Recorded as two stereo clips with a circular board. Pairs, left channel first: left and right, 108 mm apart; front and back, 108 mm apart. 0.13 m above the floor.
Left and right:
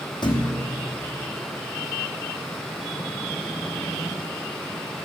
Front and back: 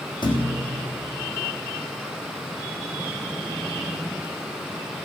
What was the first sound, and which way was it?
A thud, 45° left.